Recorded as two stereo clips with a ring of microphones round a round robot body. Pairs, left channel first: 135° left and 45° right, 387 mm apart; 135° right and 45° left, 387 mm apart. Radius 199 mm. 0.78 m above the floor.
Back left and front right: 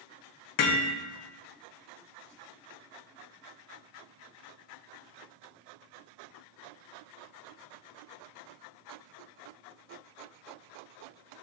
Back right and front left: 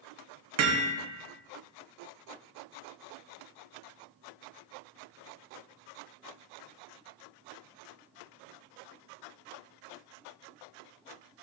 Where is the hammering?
95° left, 1.1 m.